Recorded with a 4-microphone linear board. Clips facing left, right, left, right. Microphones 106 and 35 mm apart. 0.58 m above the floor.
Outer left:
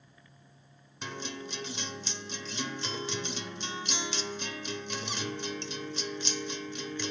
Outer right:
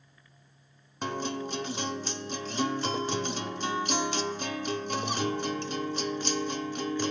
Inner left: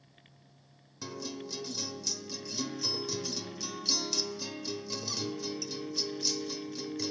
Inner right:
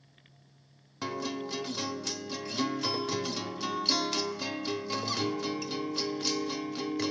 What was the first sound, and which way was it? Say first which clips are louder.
A guitar: outer right 7 dB, inner right 6 dB; 45° right (ahead or behind).